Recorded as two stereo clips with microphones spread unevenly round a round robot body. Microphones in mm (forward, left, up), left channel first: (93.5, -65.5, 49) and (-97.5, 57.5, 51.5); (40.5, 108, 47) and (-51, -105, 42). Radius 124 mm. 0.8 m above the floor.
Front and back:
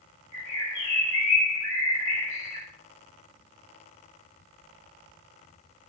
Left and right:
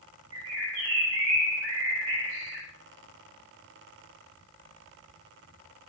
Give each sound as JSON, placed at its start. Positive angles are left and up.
{"t": 0.3, "sound": "a bird", "azimuth_deg": -80, "distance_m": 1.1}